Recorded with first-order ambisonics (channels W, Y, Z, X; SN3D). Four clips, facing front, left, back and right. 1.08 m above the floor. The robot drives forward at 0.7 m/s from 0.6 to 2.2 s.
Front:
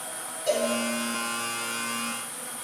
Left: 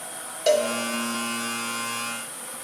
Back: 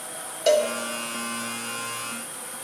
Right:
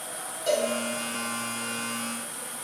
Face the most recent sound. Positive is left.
turn(degrees=165)